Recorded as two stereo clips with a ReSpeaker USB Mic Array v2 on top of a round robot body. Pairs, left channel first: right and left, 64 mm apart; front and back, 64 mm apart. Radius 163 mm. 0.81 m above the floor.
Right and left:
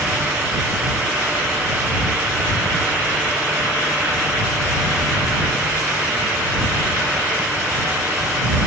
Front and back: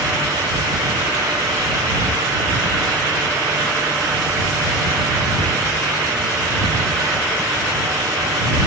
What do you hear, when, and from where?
Only background noise.